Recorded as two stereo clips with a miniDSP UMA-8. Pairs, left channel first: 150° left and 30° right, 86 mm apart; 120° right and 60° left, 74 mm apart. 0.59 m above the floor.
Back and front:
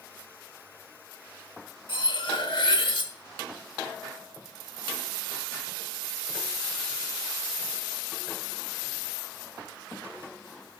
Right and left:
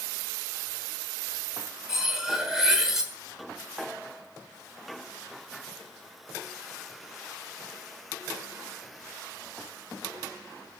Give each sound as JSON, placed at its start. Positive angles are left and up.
{"t": 1.9, "sound": "cutlery clinking", "azimuth_deg": 145, "distance_m": 1.1}